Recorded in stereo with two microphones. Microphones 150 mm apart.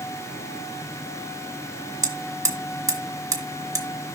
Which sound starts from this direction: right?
Hammering, at 2.0 s.